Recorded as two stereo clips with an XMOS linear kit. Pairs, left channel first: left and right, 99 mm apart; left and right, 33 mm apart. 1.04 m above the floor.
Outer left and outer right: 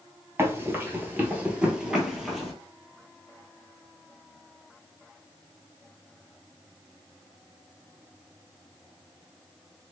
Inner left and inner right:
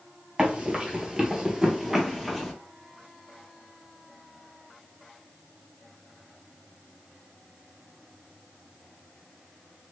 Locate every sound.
0.4 s running footsteps: 25° right (ahead or behind), 1.1 m; by 2.5 s centre (ahead or behind), 1.3 m